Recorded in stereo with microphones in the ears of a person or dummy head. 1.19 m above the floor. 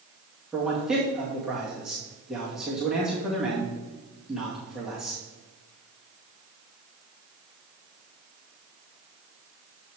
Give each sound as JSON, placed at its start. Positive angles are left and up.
{"t": 0.5, "sound": "a man speaking", "side_deg": 0, "distance_m": 2.0}